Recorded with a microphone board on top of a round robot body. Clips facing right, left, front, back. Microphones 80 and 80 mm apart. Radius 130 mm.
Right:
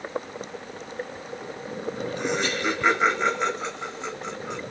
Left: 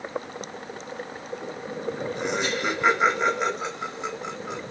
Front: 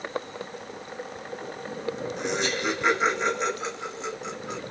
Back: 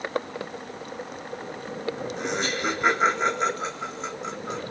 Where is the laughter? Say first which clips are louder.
Right 1 dB, even; 155° left, 2.0 m.